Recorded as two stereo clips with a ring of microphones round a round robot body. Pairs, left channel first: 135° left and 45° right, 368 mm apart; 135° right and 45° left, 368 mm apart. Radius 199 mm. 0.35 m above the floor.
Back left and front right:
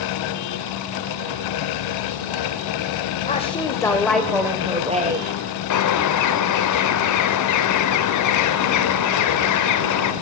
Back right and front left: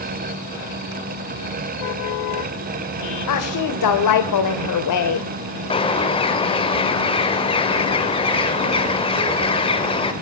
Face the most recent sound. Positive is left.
turn(degrees=155)